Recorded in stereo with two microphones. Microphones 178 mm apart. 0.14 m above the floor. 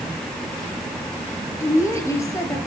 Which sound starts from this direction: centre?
A woman speaking, at 1.6 s.